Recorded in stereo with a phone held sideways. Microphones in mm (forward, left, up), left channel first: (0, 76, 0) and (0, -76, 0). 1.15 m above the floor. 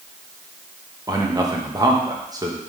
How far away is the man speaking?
About 1.2 m.